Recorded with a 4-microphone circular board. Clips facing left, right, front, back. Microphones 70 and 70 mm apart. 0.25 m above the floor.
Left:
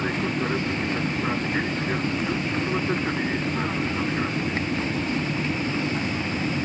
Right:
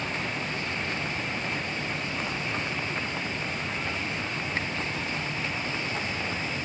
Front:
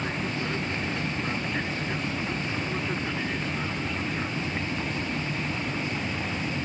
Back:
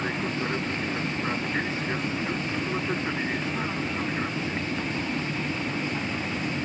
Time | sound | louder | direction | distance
0.0 | an aircraft | left 6 dB, back 2 dB | 115° left | ?